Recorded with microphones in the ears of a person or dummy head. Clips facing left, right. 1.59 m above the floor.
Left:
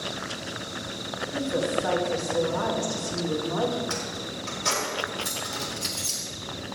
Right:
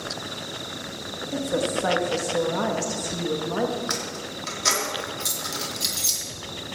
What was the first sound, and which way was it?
A woman speaking, 65° right (ahead or behind).